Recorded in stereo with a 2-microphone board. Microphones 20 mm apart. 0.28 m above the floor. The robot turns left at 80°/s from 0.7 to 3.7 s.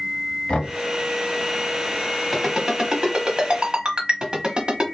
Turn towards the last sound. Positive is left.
turn(degrees=-45)  # may be behind; listen again after turning